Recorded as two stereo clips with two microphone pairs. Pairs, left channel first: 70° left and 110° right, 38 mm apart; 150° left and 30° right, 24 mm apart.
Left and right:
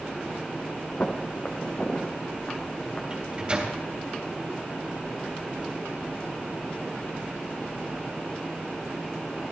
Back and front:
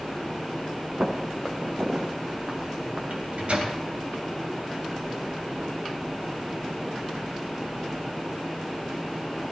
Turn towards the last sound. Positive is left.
turn(degrees=-50)